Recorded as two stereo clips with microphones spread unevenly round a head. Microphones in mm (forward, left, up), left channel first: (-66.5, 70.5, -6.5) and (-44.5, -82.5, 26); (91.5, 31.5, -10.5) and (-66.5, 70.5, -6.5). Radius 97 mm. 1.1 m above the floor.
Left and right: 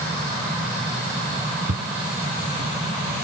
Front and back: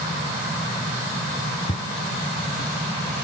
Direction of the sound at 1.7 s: 70° right.